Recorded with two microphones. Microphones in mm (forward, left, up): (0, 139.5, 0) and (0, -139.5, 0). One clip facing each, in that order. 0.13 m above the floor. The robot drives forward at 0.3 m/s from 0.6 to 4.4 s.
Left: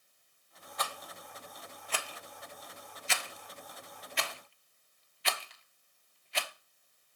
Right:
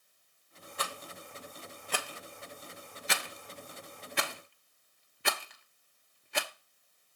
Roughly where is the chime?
I don't hear a chime.